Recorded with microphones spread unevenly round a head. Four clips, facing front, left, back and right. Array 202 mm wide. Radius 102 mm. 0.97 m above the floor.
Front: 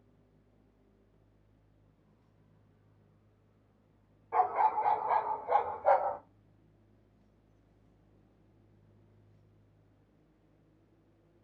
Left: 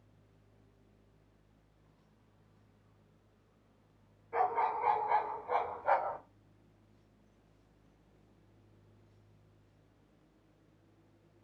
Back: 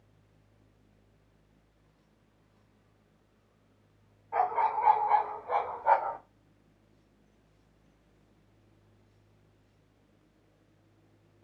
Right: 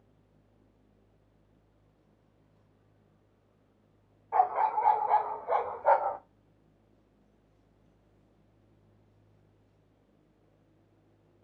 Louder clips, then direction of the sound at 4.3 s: Right 6 dB, even; 75° right.